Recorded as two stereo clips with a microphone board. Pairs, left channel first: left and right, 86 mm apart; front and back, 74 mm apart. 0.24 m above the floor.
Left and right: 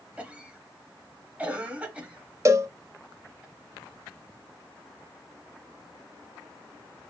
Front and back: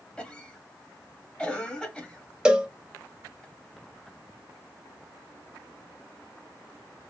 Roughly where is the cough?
Ahead right.